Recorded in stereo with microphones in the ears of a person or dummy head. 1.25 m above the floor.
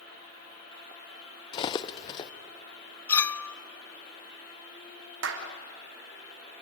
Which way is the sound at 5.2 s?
80° right.